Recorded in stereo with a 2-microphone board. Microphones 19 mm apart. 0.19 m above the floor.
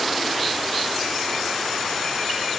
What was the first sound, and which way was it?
Only background noise.